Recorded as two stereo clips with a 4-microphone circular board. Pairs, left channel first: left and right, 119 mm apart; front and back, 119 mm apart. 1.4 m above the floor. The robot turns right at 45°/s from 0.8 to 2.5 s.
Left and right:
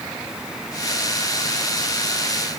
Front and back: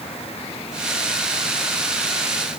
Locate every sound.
Only background noise.